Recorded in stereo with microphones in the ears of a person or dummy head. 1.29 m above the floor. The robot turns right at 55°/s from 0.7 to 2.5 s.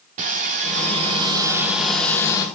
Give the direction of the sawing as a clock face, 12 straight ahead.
2 o'clock.